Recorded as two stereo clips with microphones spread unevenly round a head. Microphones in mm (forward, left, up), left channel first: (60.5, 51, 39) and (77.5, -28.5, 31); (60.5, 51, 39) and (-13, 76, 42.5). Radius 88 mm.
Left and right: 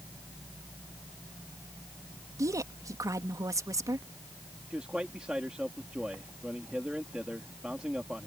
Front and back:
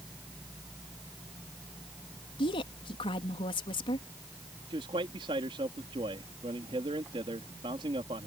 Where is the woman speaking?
30° right.